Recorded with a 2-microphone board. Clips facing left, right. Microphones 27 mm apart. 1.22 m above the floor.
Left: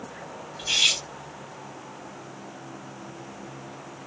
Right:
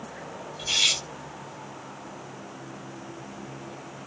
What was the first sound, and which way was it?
Cutlery clinking, 20° left (ahead or behind).